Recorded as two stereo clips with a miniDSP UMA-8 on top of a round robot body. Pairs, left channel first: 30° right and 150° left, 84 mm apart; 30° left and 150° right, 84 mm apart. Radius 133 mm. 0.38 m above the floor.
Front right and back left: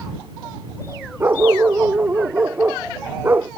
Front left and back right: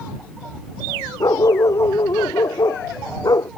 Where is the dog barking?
80° left.